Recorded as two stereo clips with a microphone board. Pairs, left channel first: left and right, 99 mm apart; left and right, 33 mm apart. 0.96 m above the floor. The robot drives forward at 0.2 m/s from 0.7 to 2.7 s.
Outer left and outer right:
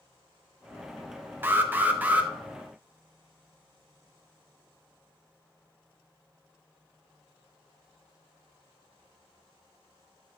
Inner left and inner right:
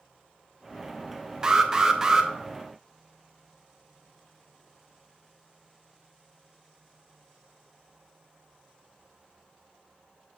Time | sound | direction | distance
1.4 | an alarm | 20° right (ahead or behind) | 0.7 m